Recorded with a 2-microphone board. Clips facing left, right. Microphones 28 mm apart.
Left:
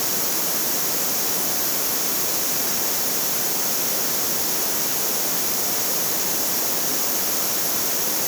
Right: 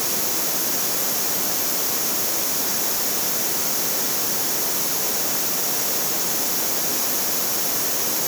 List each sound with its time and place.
Only background noise.